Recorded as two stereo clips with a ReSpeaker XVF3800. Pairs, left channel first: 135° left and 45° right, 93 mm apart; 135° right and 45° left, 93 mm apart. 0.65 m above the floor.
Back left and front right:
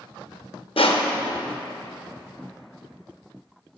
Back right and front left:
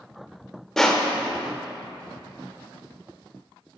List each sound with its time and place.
0.8 s crushing: 140° left, 0.5 m